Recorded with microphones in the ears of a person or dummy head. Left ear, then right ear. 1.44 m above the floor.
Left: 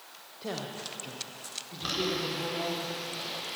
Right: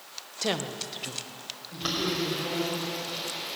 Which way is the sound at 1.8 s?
25° right (ahead or behind).